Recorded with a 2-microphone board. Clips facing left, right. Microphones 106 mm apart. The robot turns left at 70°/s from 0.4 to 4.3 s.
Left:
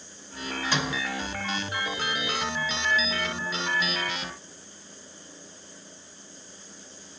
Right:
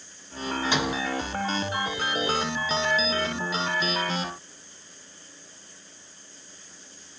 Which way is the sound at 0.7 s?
20° right (ahead or behind).